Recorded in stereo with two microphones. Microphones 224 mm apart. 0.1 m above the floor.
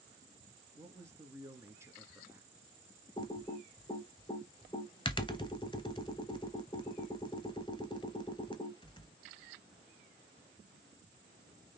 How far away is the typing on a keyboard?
About 0.9 m.